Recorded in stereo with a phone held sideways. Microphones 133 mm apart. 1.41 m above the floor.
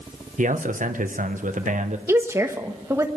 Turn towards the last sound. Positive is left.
turn(degrees=-20)  # may be behind; listen again after turning